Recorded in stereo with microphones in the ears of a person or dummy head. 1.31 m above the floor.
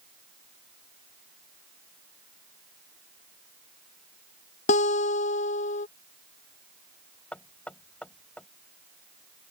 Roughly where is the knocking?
Centre.